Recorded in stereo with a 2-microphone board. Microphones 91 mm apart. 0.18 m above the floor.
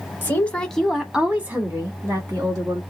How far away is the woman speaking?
About 1.0 m.